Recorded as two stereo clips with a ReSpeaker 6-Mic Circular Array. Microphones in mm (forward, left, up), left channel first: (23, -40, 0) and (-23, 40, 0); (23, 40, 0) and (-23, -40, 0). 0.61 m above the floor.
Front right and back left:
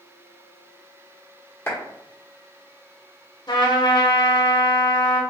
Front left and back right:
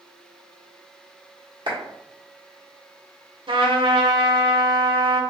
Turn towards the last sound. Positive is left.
turn(degrees=-95)